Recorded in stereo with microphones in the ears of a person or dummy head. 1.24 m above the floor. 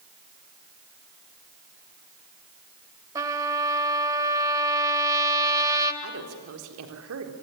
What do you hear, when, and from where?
3.1 s a trumpet: 20° right (ahead or behind), 2 m
6.0 s a woman speaking: 80° right, 4 m